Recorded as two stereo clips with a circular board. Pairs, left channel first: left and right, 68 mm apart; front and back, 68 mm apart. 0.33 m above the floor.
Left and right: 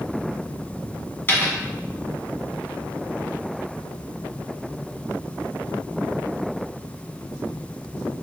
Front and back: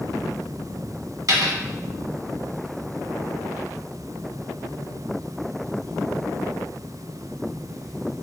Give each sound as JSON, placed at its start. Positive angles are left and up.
{"t": 1.3, "sound": "a dropped coin", "azimuth_deg": 150, "distance_m": 1.1}